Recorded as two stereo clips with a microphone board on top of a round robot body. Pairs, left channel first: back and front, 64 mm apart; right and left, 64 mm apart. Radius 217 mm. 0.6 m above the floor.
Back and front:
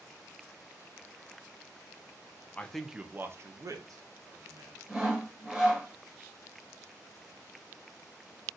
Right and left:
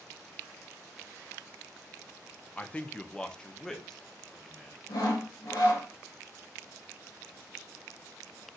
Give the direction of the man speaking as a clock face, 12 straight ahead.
5 o'clock.